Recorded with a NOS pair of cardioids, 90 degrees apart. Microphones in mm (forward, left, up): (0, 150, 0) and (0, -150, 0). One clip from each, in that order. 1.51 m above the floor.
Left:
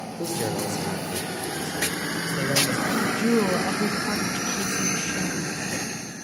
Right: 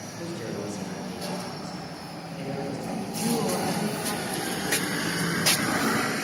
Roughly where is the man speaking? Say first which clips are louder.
Left 7 dB; ahead left.